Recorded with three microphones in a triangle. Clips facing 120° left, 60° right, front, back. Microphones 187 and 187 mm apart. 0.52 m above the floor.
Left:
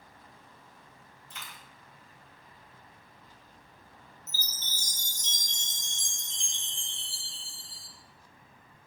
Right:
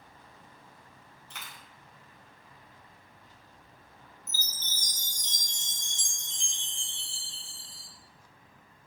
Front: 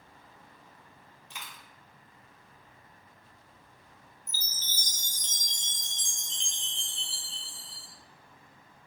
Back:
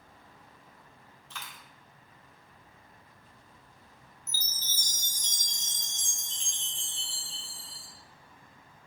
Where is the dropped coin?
75° right, 0.9 m.